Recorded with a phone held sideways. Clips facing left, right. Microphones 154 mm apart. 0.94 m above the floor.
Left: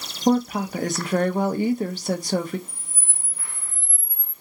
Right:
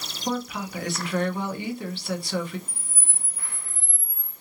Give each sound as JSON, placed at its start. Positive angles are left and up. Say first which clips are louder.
{"t": 0.3, "sound": "a woman speaking", "louder": "left 9 dB", "side_deg": 40, "distance_m": 0.6}
{"t": 2.7, "sound": "a camera shutter", "louder": "right 1 dB", "side_deg": 55, "distance_m": 1.1}